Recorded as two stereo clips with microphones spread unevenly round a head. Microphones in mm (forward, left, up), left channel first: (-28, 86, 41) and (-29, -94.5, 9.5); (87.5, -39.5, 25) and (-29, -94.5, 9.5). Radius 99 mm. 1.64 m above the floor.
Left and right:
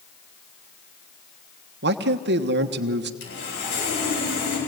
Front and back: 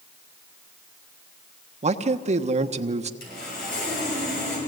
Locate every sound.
1.8 s a man speaking: 120° right, 1.2 m
3.2 s sawing: 50° left, 8.5 m